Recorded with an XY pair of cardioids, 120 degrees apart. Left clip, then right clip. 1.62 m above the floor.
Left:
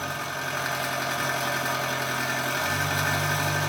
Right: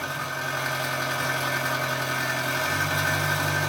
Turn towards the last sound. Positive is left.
turn(degrees=0)